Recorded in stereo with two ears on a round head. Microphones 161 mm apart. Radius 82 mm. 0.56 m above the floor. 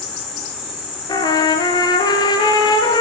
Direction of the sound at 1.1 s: 25° left (ahead or behind).